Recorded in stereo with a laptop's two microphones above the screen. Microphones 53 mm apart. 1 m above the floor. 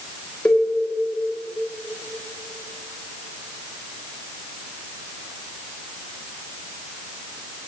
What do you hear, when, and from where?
0.5 s a cowbell: 15° left (ahead or behind), 1.9 m